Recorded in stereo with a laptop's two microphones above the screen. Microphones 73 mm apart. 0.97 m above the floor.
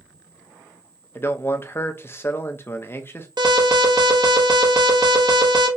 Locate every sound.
1.1 s a man speaking: 35° left (ahead or behind), 0.6 m
3.4 s an alarm: 70° right (ahead or behind), 0.9 m